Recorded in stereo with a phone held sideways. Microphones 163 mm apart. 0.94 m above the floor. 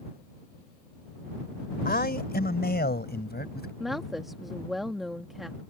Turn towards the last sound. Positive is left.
turn(degrees=0)  # may be behind; listen again after turning